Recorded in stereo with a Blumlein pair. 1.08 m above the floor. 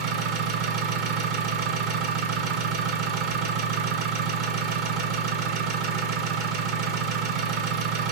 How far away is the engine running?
About 1.2 m.